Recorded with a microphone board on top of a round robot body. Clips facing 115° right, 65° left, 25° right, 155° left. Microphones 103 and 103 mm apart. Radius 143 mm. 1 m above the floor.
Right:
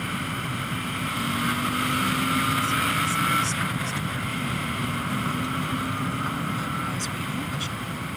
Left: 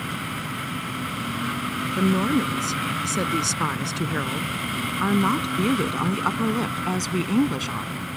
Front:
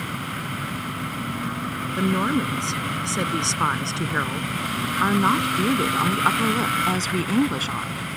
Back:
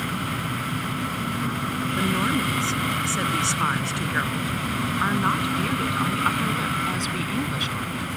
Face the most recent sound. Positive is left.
turn(degrees=30)